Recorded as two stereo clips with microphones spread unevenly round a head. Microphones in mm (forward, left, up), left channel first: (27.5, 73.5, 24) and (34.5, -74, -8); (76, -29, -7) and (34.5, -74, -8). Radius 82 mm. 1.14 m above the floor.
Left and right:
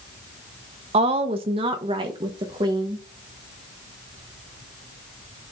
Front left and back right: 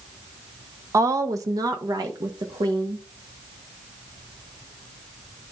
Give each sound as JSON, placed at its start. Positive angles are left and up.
{"t": 0.9, "sound": "a woman speaking", "azimuth_deg": -115, "distance_m": 1.0}